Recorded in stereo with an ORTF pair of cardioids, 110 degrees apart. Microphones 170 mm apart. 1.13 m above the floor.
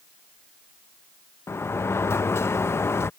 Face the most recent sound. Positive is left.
turn(degrees=15)